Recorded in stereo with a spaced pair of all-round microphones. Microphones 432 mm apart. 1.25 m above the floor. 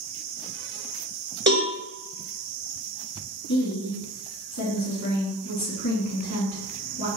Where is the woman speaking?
40° left (ahead or behind), 1.9 m.